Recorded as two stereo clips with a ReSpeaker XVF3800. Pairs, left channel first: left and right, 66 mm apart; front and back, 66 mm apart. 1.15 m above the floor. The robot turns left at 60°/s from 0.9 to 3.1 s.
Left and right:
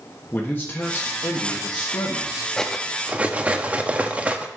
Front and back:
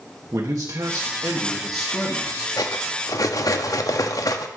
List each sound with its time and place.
0.3 s a man speaking: 150° left, 1.3 m; by 2.5 s 55° left, 1.3 m
2.6 s cutlery clinking: 10° left, 0.9 m; by 4.5 s 25° right, 0.9 m